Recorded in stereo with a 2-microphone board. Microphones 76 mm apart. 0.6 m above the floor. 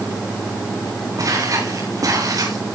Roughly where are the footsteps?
Right.